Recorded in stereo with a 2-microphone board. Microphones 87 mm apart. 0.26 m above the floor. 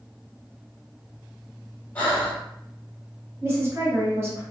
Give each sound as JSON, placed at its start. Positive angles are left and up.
{"t": 1.9, "sound": "breathing", "side_deg": 20, "distance_m": 1.7}
{"t": 3.4, "sound": "a woman speaking", "side_deg": -30, "distance_m": 1.6}